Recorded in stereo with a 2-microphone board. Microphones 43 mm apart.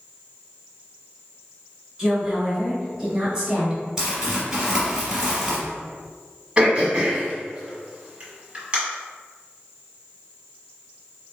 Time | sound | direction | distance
2.0 | a woman speaking | 15° right (ahead or behind) | 2.0 m
4.0 | crumpling | 15° right (ahead or behind) | 1.9 m
6.6 | throat clearing | 25° right (ahead or behind) | 1.3 m